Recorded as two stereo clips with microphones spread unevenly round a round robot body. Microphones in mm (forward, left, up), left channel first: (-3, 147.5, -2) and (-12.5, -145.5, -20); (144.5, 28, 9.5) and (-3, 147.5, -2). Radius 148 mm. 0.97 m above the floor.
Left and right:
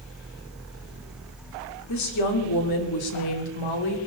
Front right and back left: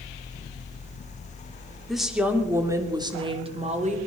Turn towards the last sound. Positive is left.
turn(degrees=90)